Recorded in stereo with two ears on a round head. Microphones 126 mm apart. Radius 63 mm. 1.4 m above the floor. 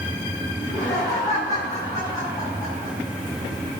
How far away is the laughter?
About 9 m.